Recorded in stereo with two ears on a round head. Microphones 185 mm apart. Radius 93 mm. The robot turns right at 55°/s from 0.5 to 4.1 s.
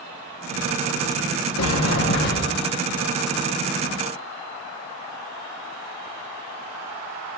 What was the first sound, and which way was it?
A sliding door, 85° left.